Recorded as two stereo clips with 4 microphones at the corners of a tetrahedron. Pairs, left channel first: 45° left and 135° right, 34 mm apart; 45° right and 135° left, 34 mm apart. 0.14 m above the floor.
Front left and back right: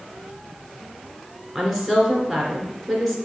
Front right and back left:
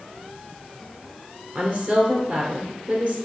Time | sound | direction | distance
1.6 | a woman speaking | 140° left | 2 m